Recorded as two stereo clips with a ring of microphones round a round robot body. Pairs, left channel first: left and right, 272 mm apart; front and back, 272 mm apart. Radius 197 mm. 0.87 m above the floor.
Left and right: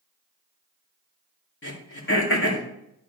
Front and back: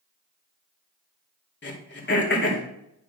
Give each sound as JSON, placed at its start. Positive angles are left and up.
{"t": 1.6, "sound": "throat clearing", "azimuth_deg": 45, "distance_m": 2.5}